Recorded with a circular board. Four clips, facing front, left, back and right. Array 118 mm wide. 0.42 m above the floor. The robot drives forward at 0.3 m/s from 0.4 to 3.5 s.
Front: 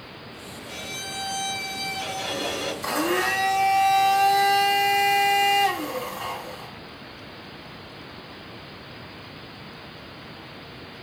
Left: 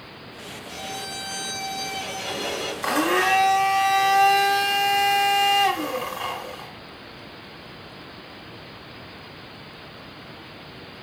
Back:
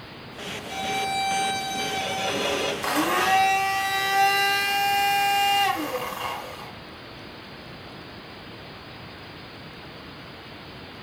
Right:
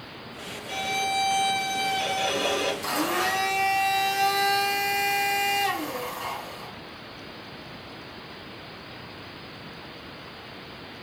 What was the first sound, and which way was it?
A violin, 100° right.